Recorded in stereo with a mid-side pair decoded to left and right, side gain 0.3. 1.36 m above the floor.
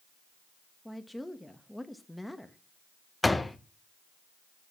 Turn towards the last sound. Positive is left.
turn(degrees=20)